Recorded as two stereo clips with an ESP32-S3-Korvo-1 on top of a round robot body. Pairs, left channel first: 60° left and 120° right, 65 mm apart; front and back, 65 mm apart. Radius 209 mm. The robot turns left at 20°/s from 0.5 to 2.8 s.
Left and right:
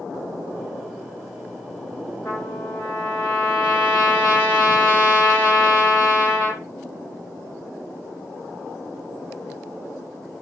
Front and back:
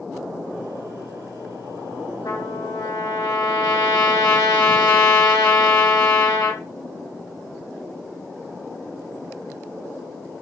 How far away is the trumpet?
About 3 m.